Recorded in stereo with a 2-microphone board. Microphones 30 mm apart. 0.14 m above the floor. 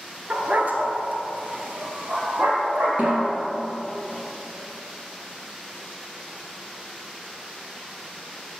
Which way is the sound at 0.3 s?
50° right (ahead or behind).